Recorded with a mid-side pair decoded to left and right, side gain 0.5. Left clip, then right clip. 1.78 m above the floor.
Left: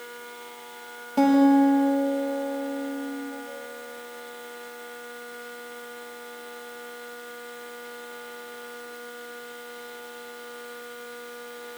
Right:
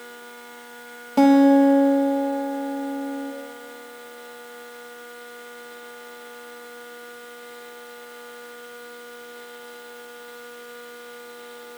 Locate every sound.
1.2 s a guitar: 35° right, 2.5 m